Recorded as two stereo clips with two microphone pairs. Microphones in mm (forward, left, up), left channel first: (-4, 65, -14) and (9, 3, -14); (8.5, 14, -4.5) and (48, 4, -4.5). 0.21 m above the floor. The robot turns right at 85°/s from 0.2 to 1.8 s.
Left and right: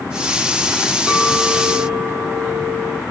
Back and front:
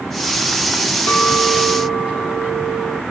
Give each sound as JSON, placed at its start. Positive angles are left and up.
{"t": 1.1, "sound": "a clink", "azimuth_deg": -155, "distance_m": 0.9}